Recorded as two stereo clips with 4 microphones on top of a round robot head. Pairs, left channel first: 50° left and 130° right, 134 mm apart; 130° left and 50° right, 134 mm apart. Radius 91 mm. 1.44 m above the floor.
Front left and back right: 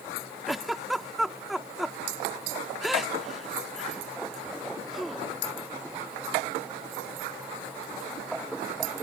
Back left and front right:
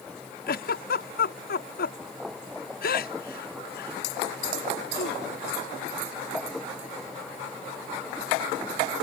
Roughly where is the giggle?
Behind left.